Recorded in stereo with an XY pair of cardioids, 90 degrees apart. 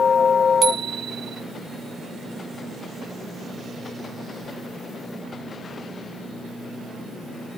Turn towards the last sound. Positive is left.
turn(degrees=-60)